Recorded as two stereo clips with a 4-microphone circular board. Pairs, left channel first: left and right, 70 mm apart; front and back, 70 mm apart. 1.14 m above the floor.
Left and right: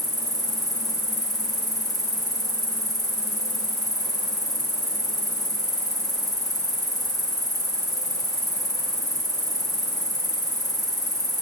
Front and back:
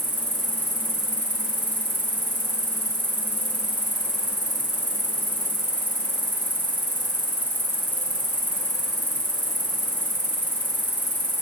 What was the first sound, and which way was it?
An insect, 70° left.